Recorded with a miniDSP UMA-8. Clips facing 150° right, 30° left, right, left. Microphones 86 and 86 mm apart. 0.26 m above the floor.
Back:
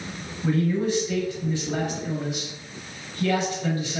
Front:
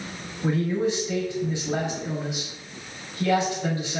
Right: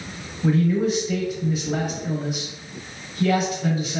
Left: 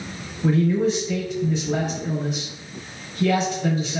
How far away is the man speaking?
About 1.0 m.